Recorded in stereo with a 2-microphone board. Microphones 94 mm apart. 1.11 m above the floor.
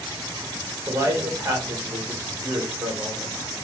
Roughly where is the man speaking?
Right.